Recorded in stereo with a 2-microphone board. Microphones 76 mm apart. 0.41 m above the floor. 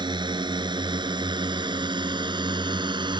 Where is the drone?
75° right (ahead or behind).